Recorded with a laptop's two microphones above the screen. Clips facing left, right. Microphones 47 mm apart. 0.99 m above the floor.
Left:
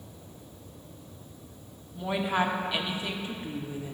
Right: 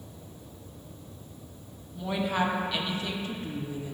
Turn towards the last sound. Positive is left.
turn(degrees=15)  # may be behind; listen again after turning